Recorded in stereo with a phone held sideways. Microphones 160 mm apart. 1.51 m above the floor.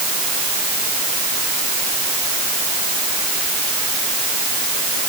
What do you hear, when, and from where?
Only background noise.